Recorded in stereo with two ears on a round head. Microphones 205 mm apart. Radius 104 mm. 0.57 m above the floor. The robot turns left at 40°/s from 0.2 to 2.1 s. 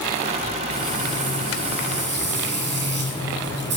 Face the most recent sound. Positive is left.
turn(degrees=-125)